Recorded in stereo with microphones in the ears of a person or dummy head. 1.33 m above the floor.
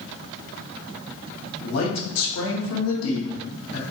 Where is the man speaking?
70° left (ahead or behind), 0.9 m.